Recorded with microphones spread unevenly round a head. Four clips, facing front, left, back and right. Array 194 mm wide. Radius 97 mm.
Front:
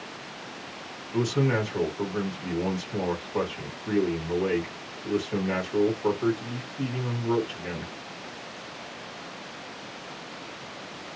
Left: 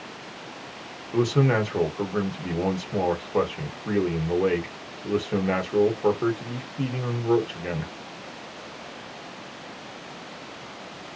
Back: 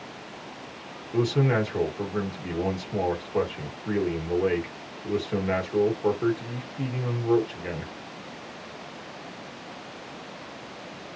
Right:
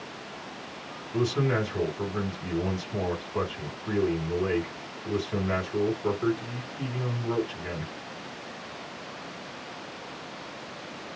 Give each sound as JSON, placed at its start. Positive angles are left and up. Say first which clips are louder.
{"t": 1.1, "sound": "a man speaking", "louder": "left 4 dB, back 2 dB", "azimuth_deg": 110, "distance_m": 1.2}